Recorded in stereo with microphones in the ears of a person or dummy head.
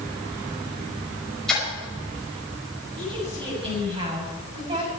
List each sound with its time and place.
1.5 s a splash: centre (ahead or behind), 6 m
3.0 s a woman speaking: 30° right (ahead or behind), 7.5 m